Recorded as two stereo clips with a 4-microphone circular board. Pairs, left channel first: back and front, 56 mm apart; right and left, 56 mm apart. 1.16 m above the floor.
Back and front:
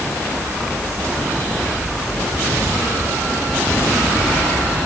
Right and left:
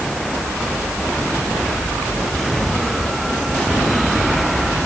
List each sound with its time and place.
Only background noise.